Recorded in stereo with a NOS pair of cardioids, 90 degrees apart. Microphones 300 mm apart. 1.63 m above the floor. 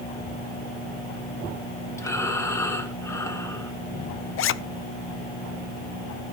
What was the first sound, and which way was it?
Breathing, 10° left.